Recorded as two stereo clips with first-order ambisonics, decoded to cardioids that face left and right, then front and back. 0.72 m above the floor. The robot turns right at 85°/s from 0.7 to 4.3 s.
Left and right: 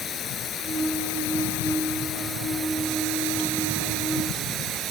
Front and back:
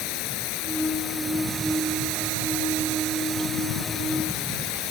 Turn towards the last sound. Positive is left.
turn(degrees=-25)